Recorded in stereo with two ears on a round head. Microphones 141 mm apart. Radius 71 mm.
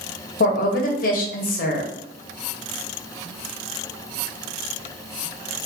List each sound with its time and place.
0.4 s a woman speaking: 55° left (ahead or behind), 0.7 m